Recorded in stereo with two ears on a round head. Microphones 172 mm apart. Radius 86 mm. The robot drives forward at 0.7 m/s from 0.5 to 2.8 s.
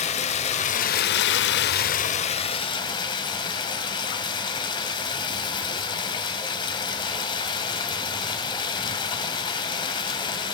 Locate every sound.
0.0 s running water: 35° left (ahead or behind), 0.8 m; by 10.6 s 25° left (ahead or behind), 1.1 m